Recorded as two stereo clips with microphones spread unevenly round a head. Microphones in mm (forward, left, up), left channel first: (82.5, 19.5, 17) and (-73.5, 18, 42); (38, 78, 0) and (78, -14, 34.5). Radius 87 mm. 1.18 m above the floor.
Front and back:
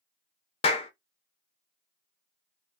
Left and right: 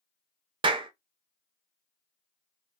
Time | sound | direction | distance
0.6 | a clap | 60° right | 0.5 m